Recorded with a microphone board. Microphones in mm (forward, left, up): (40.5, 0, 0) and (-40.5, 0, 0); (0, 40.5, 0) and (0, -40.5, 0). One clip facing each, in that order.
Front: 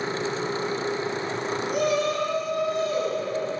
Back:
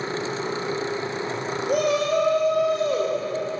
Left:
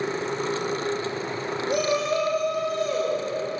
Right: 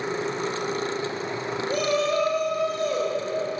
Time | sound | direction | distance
1.7 | a shout | 165° left | 4 m